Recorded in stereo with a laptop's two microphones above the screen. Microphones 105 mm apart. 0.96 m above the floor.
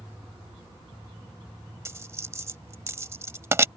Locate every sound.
1.9 s a dropped coin: 25° right (ahead or behind)